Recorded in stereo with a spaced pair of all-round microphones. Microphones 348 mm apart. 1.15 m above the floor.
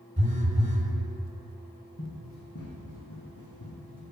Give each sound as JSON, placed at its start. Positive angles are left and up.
{"t": 0.2, "sound": "a phone buzzing", "side_deg": -20, "distance_m": 1.5}
{"t": 2.0, "sound": "running footsteps", "side_deg": 30, "distance_m": 2.0}